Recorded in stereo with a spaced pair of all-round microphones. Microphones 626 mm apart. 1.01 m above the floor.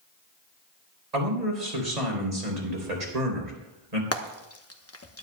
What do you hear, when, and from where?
1.1 s a man speaking: 85° right, 3.5 m
4.1 s frying: 25° left (ahead or behind), 0.9 m